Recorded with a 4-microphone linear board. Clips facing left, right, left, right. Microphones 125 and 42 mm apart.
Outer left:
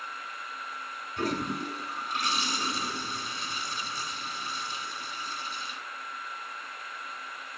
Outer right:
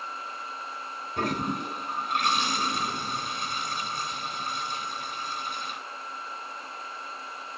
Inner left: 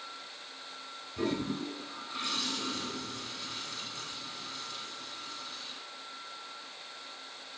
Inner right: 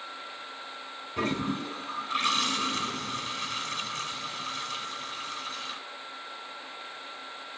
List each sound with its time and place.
1.2 s a toilet flushing: 65° right (ahead or behind), 2 m